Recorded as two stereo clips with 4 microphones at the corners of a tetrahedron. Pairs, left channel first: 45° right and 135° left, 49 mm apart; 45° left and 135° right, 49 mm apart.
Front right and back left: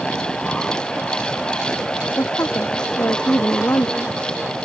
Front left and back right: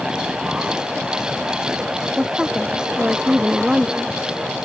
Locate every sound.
2.2 s a woman speaking: 55° right; by 4.2 s 60° right